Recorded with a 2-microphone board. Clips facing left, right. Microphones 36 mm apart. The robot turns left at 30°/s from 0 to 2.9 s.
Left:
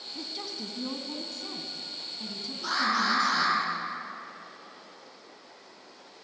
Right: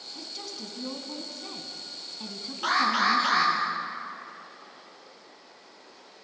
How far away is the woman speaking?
About 2.5 m.